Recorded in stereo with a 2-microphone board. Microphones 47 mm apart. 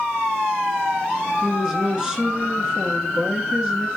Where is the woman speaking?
20° right (ahead or behind), 1.7 m.